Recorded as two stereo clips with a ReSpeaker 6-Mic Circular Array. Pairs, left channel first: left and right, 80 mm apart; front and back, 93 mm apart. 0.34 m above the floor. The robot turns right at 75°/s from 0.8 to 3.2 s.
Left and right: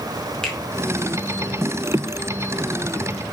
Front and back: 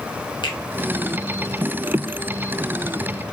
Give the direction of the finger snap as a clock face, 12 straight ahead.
12 o'clock.